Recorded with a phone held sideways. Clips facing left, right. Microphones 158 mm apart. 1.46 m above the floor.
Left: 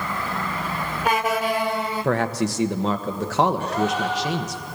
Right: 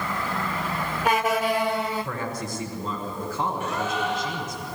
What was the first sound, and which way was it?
A man speaking, 85° left.